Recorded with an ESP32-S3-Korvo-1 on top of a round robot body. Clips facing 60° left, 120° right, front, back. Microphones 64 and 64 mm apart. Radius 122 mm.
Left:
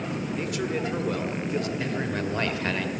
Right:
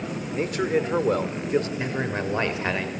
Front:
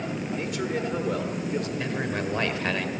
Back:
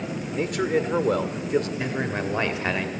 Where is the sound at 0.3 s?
165° right, 1.7 m.